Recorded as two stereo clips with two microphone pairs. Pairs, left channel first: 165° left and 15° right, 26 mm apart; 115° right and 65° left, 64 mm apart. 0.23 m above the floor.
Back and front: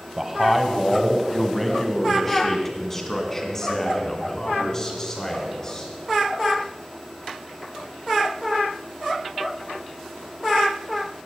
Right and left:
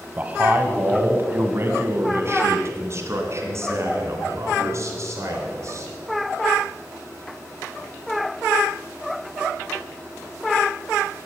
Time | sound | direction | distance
0.2 | a man speaking | 50° left | 1.3 m